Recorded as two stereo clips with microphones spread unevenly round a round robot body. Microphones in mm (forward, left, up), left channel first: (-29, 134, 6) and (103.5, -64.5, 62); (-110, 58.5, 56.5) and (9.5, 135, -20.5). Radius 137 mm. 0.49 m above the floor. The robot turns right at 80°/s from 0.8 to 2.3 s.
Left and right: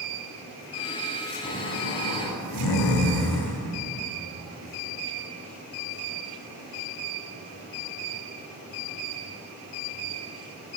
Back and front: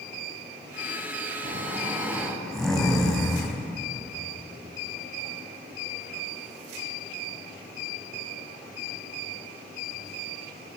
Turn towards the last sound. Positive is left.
turn(degrees=125)